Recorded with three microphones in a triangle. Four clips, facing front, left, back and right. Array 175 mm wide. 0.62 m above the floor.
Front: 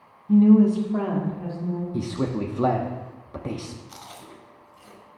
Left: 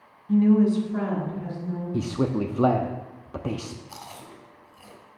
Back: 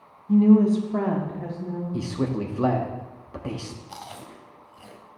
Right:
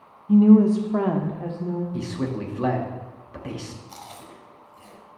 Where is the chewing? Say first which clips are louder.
Even, back 3 dB; 175° left, 1.1 m.